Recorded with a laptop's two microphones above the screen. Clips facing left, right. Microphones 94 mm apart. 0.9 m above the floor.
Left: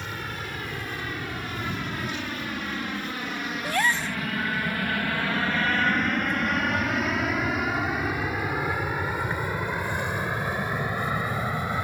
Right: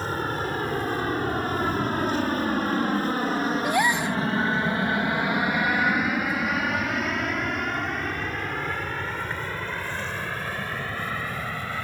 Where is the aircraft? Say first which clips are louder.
Right 7 dB; 40° right (ahead or behind); by 11.8 s 20° left (ahead or behind).